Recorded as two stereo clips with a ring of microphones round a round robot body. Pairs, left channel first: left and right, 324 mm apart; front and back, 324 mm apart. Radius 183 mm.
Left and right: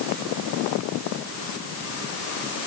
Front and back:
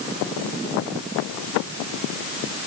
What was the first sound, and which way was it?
Only background noise.